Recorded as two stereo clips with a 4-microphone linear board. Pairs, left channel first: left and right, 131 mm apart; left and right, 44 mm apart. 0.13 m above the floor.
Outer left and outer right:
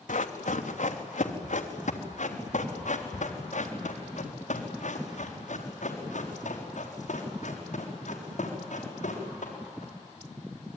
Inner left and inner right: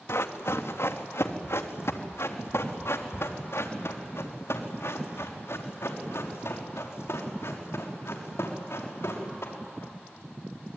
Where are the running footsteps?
80° left, 2.5 m; by 9.9 s 65° left (ahead or behind), 7.5 m.